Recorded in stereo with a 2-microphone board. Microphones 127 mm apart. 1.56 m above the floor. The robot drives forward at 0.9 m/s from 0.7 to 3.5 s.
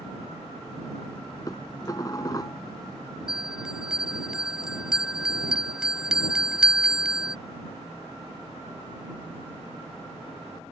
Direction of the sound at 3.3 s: 5° right (ahead or behind).